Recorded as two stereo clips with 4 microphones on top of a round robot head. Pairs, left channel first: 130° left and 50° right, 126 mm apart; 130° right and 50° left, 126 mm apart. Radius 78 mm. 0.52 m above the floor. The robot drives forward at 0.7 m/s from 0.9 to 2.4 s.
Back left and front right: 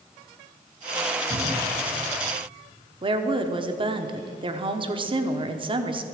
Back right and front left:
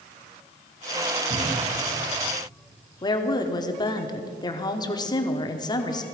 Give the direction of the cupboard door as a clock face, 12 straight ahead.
12 o'clock.